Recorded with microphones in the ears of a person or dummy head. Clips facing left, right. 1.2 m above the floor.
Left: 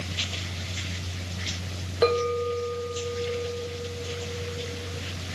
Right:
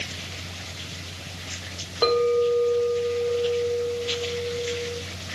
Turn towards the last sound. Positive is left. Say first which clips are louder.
# right 4 dB
turn(degrees=15)  # may be behind; listen again after turning